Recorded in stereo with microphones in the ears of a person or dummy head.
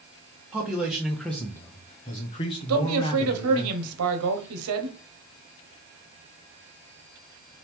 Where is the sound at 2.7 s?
80° right, 1.1 m.